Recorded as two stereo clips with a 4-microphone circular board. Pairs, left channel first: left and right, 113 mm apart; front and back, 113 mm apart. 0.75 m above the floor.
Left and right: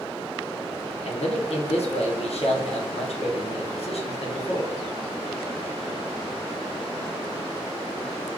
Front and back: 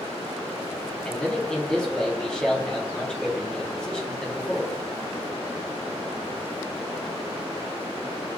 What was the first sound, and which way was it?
A man speaking, 85° left.